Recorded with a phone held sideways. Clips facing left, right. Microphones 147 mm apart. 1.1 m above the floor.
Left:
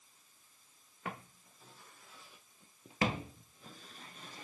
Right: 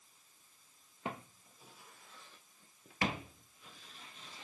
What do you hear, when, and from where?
1.1 s footsteps: 25° right (ahead or behind), 1.5 m; by 4.5 s 55° left (ahead or behind), 1.9 m